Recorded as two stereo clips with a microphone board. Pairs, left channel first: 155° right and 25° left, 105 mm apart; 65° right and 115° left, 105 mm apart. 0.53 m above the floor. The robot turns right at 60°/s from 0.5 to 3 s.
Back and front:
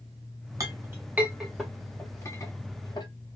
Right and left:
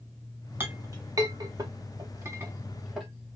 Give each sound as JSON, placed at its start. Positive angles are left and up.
{"t": 0.6, "sound": "a clink", "azimuth_deg": 55, "distance_m": 0.9}